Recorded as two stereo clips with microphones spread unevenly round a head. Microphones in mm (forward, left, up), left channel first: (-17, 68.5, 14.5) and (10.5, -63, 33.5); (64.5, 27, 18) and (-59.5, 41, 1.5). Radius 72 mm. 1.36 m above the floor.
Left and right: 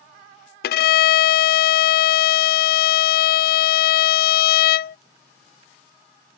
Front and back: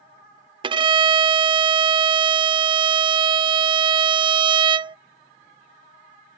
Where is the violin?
120° left.